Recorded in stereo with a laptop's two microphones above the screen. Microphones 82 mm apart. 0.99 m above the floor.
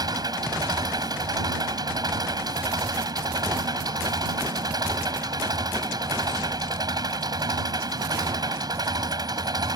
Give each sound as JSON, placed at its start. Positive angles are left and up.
{"t": 0.0, "sound": "an engine running", "side_deg": -55}